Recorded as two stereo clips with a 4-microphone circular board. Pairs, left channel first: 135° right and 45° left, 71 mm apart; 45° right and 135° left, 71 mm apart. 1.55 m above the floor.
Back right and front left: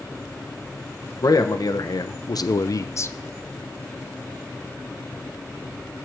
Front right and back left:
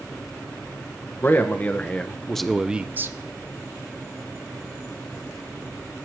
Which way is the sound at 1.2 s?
105° right.